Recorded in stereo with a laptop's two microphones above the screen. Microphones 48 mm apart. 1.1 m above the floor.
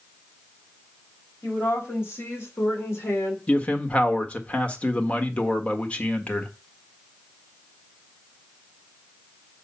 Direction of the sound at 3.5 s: 30° left (ahead or behind).